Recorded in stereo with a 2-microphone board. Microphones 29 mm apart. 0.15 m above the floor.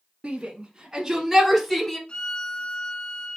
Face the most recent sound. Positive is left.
turn(degrees=40)  # may be behind; listen again after turning